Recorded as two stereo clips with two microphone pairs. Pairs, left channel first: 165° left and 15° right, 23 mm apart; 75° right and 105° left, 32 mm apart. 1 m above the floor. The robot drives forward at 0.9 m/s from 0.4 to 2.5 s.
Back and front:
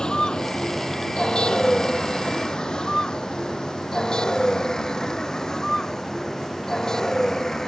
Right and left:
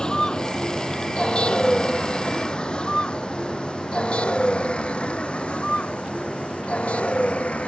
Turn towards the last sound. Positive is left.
turn(degrees=-125)